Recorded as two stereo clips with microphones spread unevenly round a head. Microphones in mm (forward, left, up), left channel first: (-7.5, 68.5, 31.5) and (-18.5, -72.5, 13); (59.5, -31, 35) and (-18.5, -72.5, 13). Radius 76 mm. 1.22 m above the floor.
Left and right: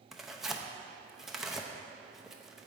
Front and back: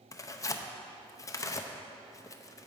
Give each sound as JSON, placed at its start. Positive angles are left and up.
{"t": 0.1, "sound": "tearing paper", "azimuth_deg": -20, "distance_m": 0.6}